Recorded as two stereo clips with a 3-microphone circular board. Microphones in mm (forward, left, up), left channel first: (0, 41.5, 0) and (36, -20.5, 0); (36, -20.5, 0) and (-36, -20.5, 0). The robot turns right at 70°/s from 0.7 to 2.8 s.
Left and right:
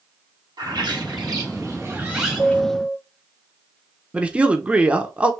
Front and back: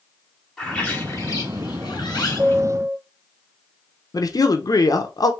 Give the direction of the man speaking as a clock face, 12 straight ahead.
12 o'clock.